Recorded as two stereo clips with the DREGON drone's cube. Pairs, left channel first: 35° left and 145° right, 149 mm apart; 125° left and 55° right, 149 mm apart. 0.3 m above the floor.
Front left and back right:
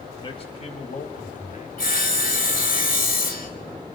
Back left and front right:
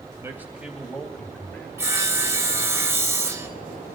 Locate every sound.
0.2 s a man speaking: 5° left, 1.6 m; by 1.7 s 50° left, 2.5 m
1.8 s sawing: 20° left, 1.6 m